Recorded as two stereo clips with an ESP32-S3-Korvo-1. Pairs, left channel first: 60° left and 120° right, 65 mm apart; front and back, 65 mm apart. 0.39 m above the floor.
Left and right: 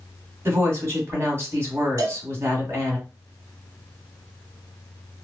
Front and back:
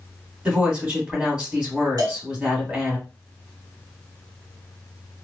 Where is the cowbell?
155° right, 0.8 m.